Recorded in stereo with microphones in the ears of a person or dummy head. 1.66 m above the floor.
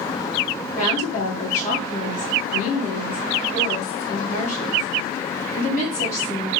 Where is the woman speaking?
50° left (ahead or behind), 1.8 m.